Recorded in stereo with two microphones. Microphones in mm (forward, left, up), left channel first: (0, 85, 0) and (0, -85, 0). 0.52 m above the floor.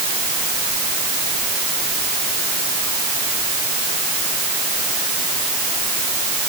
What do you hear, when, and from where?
Only background noise.